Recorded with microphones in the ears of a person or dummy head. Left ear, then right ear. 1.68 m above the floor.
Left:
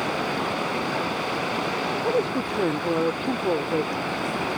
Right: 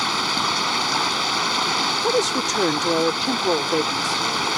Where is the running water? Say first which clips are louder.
Right 5 dB; 60° right (ahead or behind).